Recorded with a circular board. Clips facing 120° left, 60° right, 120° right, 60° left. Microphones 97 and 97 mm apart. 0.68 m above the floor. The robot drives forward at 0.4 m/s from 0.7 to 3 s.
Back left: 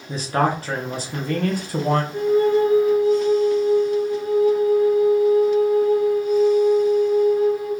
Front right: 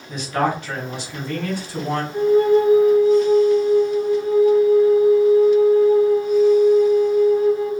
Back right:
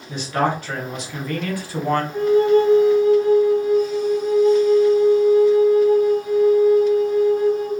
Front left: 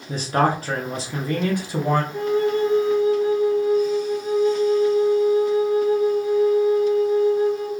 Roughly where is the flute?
Right.